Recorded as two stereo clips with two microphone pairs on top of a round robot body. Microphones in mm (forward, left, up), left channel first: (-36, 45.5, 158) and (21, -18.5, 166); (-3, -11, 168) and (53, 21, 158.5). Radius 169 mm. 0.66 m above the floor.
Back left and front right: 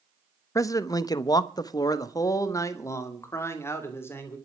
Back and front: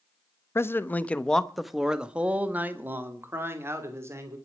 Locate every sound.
0.6 s a man speaking: 165° left, 1.2 m; by 4.4 s 70° left, 3 m